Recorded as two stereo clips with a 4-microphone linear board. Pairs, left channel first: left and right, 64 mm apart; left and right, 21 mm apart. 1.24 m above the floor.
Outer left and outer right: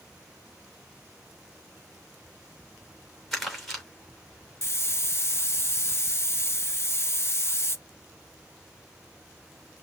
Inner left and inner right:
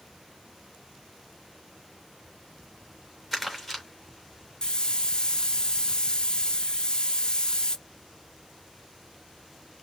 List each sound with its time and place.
3.3 s crumpling: 5° left (ahead or behind), 3 m
4.6 s a hiss: 40° left (ahead or behind), 0.6 m